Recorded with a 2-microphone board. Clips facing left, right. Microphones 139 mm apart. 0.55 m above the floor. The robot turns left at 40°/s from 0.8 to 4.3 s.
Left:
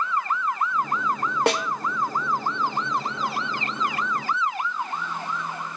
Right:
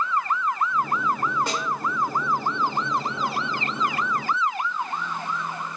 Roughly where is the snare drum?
Left.